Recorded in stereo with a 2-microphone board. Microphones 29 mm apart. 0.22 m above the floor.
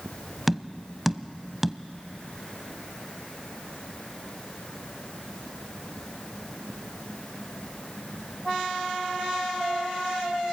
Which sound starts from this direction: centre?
Tapping, at 0.5 s.